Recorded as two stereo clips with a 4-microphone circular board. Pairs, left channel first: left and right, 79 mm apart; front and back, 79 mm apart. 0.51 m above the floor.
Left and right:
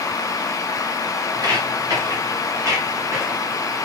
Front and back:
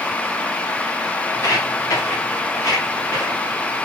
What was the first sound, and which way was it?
Footsteps, 50° right.